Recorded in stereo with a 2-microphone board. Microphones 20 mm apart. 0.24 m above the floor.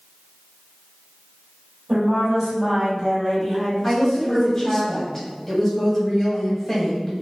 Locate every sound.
1.9 s a woman speaking: 35° right (ahead or behind), 1.5 m; by 4.8 s 20° left (ahead or behind), 1.2 m
3.8 s a woman speaking: 10° left (ahead or behind), 1.0 m